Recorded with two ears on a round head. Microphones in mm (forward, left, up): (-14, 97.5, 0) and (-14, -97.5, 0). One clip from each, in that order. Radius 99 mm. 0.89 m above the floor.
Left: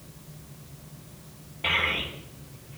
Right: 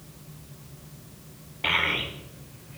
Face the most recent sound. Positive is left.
turn(degrees=-30)  # may be behind; listen again after turning